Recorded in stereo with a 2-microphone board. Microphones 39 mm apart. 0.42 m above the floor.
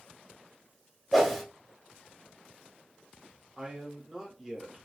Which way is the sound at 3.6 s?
10° right (ahead or behind).